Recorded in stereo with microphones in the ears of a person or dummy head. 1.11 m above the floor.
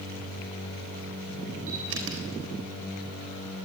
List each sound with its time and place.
1.7 s a camera shutter: 75° right (ahead or behind), 4 m